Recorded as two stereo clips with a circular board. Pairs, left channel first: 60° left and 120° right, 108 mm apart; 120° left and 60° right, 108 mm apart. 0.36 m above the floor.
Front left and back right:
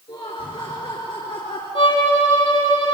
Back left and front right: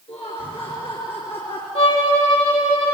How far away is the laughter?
About 4.5 m.